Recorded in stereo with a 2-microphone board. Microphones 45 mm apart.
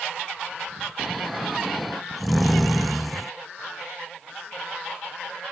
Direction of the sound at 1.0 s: Centre (ahead or behind).